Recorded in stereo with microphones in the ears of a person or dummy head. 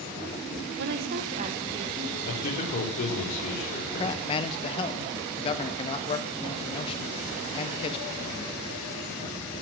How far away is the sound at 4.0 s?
About 1.4 m.